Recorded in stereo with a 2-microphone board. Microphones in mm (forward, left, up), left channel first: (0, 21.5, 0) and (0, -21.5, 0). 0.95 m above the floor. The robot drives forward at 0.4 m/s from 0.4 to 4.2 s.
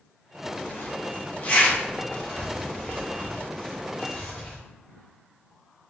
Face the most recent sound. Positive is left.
turn(degrees=20)  # may be behind; listen again after turning